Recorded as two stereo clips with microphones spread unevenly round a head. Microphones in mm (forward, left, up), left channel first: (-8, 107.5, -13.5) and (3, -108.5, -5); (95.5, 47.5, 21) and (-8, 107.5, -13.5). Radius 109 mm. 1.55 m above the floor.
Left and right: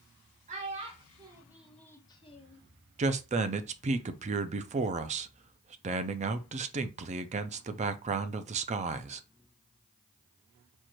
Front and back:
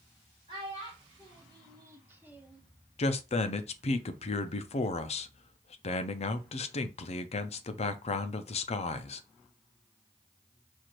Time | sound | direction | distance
0.5 | a child speaking | 135° right | 1.4 m
3.0 | a man speaking | 30° right | 0.5 m